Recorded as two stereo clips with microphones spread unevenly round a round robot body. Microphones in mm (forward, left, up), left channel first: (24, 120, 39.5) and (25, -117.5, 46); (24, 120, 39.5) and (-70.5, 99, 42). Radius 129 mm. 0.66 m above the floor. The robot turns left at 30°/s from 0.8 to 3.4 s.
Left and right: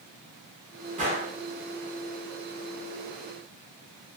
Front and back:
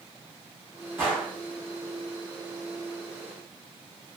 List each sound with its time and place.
1.0 s a gunshot: 120° right, 1.3 m; by 1.4 s 130° right, 1.3 m